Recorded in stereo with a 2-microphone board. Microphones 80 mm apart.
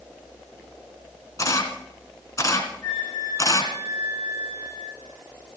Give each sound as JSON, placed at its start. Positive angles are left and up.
{"t": 1.4, "sound": "a camera shutter", "side_deg": 40, "distance_m": 1.9}
{"t": 2.8, "sound": "a flute", "side_deg": 75, "distance_m": 5.5}